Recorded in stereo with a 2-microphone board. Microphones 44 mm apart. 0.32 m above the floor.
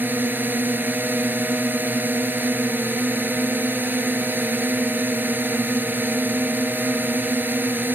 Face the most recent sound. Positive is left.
turn(degrees=-45)  # may be behind; listen again after turning